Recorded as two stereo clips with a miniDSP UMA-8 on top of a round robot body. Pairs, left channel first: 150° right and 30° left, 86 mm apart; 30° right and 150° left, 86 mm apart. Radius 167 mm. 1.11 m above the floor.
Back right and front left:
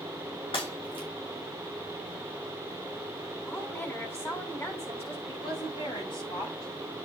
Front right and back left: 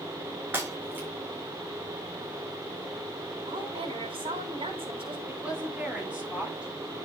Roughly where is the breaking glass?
Behind right.